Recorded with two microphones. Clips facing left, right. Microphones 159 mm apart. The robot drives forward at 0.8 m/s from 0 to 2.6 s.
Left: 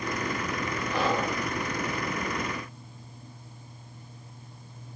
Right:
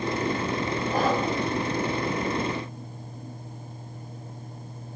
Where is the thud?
No thud in this recording.